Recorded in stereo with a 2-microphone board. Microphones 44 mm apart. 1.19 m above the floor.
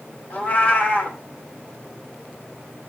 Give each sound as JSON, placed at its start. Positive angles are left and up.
{"t": 0.3, "sound": "a cat meowing", "side_deg": 40, "distance_m": 2.0}